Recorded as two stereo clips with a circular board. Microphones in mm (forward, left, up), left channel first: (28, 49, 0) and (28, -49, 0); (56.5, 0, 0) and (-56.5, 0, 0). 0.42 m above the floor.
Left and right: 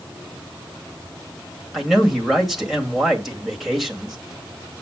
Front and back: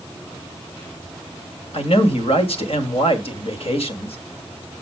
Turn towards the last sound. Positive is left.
turn(degrees=0)